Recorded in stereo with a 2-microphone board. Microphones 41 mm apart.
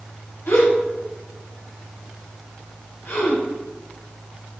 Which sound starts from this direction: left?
A gasp, at 0.5 s.